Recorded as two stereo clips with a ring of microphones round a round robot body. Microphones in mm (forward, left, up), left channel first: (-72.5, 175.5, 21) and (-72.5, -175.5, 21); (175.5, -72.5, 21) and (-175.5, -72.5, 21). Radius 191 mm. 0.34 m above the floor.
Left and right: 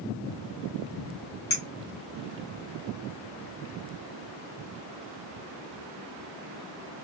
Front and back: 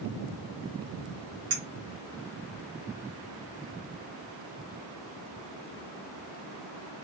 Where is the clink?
130° left, 1.4 m.